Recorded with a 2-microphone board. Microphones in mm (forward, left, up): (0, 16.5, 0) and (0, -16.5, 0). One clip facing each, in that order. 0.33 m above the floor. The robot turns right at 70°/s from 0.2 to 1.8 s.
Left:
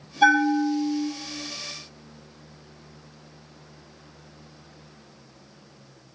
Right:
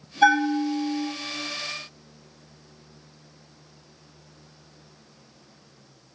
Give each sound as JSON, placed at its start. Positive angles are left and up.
{"t": 0.2, "sound": "a bell", "azimuth_deg": 165, "distance_m": 2.5}